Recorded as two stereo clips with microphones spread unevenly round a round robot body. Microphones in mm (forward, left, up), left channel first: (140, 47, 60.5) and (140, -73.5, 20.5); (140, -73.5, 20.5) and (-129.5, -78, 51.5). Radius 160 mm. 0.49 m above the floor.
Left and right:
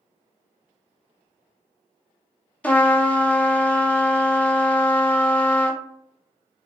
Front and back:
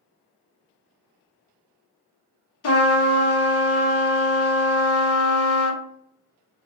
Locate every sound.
2.6 s a trumpet: straight ahead, 0.7 m